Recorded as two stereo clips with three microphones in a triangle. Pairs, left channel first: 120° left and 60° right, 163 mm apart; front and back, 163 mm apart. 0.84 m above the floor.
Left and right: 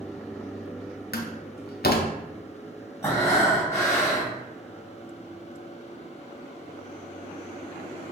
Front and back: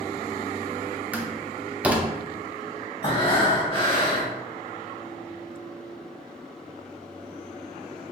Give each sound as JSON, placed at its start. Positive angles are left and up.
{"t": 1.1, "sound": "a door slam", "azimuth_deg": 100, "distance_m": 0.5}
{"t": 3.0, "sound": "breathing", "azimuth_deg": 50, "distance_m": 1.2}